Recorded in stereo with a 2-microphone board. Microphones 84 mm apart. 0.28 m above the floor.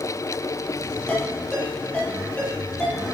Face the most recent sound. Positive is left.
turn(degrees=15)  # may be behind; listen again after turning